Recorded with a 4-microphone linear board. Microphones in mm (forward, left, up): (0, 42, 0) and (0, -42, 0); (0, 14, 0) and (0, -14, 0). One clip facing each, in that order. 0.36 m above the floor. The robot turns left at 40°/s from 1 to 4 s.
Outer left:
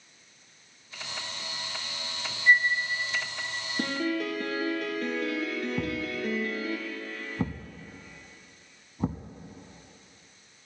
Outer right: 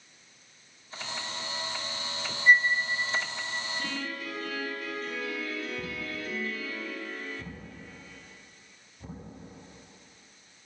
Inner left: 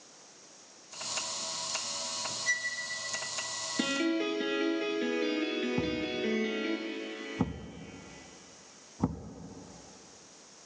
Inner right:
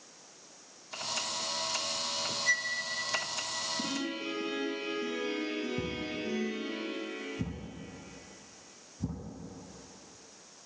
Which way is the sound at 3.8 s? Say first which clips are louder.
Outer left 7 dB, inner left 5 dB; 85° left.